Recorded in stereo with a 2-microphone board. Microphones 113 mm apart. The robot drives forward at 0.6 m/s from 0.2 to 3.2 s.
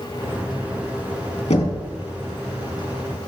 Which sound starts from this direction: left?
Knocking, at 1.5 s.